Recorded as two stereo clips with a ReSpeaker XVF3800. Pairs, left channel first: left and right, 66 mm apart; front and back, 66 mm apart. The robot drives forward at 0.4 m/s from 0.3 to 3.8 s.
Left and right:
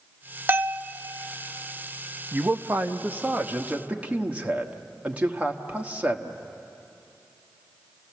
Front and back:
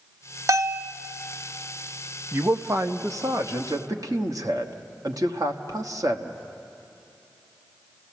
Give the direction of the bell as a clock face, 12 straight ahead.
5 o'clock.